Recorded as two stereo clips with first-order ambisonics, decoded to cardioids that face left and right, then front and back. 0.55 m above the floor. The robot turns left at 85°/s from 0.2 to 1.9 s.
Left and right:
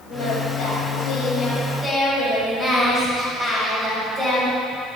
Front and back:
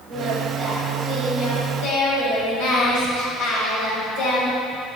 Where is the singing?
135° left, 3 m; by 4.5 s 10° right, 3 m.